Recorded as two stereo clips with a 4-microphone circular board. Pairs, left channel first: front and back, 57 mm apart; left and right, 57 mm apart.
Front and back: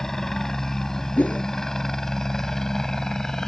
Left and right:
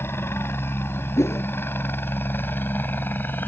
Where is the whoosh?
60° left.